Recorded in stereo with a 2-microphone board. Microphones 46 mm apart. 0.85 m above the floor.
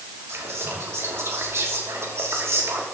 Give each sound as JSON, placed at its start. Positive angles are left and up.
{"t": 0.3, "sound": "whispering", "side_deg": -60, "distance_m": 2.5}